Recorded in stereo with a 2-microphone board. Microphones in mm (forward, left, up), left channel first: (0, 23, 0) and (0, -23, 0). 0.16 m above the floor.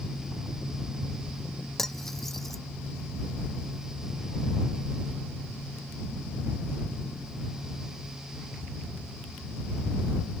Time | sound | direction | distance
1.8 | cutlery clinking | 10° left (ahead or behind) | ?